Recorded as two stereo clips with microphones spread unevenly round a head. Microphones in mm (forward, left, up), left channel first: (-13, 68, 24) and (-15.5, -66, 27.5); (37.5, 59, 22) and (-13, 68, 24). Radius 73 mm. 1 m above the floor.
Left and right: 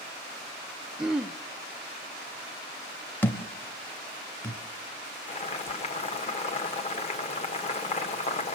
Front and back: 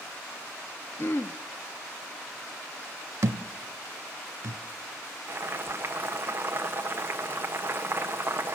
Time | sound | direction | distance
1.0 | throat clearing | 5° right | 0.5 m
3.2 | a thud | 165° left | 0.8 m
5.3 | boiling | 125° left | 1.3 m